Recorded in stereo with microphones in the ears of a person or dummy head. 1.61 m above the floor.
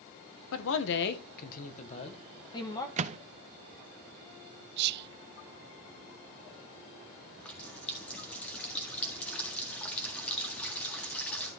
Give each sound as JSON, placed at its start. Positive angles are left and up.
{"t": 0.5, "sound": "a man speaking", "side_deg": 75, "distance_m": 1.3}
{"t": 3.0, "sound": "a microwave", "side_deg": -35, "distance_m": 0.5}
{"t": 4.8, "sound": "whispering", "side_deg": -60, "distance_m": 0.5}
{"t": 7.4, "sound": "a running tap", "side_deg": 5, "distance_m": 1.6}